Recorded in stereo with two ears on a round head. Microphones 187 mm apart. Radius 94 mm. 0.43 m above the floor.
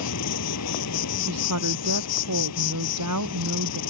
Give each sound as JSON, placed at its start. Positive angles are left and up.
{"t": 0.0, "sound": "an insect", "side_deg": 85}
{"t": 1.3, "sound": "a woman speaking", "side_deg": -85}